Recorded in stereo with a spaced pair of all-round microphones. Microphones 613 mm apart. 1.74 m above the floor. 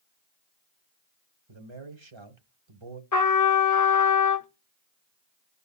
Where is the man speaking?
50° right (ahead or behind), 1.2 m.